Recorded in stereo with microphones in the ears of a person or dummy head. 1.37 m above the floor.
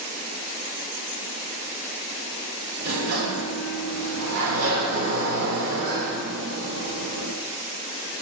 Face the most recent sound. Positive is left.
turn(degrees=-85)